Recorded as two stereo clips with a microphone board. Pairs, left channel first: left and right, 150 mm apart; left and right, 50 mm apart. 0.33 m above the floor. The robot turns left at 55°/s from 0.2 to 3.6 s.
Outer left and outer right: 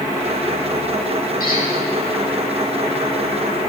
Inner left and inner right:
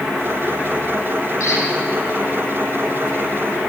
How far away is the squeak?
About 9.5 m.